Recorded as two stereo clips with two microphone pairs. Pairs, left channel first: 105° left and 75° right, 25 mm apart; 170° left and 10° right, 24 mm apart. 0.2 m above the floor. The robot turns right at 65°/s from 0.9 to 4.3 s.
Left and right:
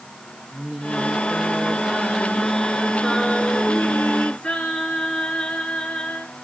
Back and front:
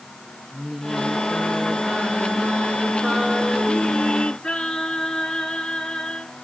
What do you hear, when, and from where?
0.5 s singing: 100° right, 1.8 m; by 6.3 s 120° left, 1.8 m